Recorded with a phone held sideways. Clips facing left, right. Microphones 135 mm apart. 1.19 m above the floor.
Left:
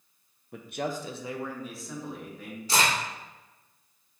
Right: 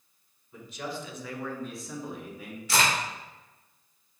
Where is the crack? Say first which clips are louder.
Even; 35° left (ahead or behind), 1.8 m.